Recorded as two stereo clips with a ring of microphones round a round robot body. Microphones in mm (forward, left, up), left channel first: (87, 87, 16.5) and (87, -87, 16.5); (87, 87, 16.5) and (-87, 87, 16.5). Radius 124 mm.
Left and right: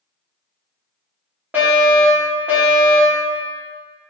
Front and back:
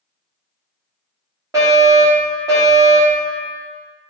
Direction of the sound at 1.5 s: 150° right.